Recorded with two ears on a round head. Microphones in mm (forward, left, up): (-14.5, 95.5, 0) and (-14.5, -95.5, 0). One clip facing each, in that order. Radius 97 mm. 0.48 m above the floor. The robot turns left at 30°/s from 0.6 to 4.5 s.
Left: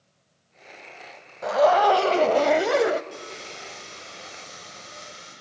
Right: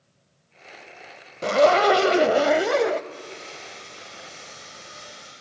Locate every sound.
1.4 s a zipper: 140° right, 0.5 m; by 3.0 s 170° left, 0.5 m
3.1 s sawing: 30° left, 9 m; by 5.3 s 10° right, 9 m